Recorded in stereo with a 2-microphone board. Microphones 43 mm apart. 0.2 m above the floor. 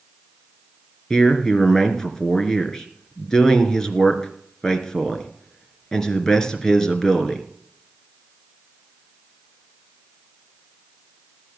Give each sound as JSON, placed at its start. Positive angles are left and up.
{"t": 1.1, "sound": "a man speaking", "side_deg": 15, "distance_m": 2.5}